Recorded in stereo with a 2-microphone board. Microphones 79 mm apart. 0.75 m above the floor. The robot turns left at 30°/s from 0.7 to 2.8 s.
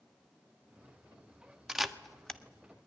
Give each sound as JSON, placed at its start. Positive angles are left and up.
{"t": 1.7, "sound": "a camera shutter", "side_deg": -5, "distance_m": 1.1}